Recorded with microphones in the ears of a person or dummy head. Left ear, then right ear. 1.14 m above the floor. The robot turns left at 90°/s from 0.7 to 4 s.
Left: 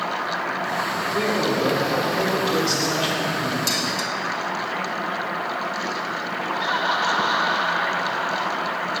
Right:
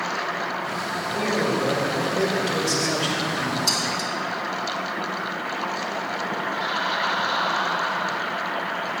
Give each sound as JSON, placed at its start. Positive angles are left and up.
{"t": 1.1, "sound": "a man speaking", "azimuth_deg": 0, "distance_m": 3.5}
{"t": 3.7, "sound": "dishes clattering", "side_deg": 40, "distance_m": 1.8}
{"t": 6.5, "sound": "laughter", "side_deg": 80, "distance_m": 2.5}